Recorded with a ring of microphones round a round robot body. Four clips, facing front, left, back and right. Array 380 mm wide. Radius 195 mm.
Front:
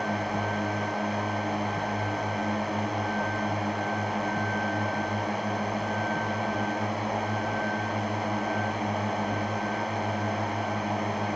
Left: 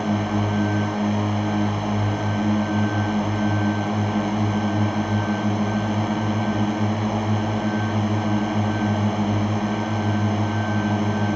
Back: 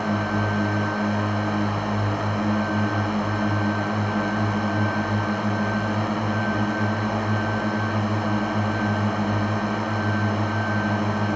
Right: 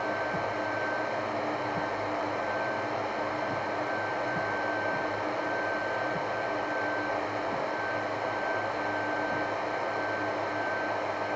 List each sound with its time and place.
0.0 s a drone: 115° left